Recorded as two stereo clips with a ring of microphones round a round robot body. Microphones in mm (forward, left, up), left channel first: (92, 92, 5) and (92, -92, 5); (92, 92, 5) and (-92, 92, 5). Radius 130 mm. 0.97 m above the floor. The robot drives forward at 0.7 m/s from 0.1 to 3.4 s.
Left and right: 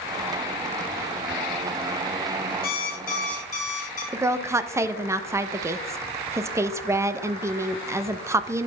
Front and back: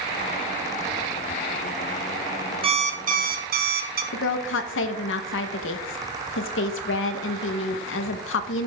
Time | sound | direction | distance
2.6 | an alarm clock | 125° left | 0.8 m
4.1 | a woman speaking | 15° right | 0.6 m